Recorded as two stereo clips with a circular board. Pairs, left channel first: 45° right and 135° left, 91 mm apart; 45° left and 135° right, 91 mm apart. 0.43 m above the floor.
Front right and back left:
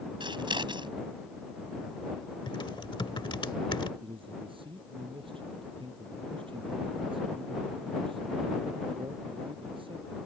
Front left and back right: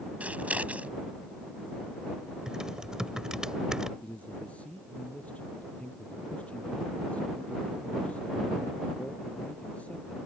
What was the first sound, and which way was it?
Scissors, 150° left.